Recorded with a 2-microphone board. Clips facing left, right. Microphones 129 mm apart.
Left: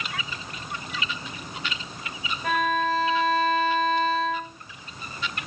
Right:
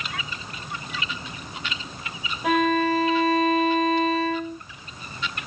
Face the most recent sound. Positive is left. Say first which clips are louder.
# right 4 dB
turn(degrees=-15)  # may be behind; listen again after turning